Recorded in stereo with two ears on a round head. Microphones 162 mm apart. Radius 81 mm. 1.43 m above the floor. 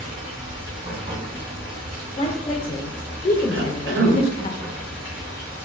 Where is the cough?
80° right, 0.8 m.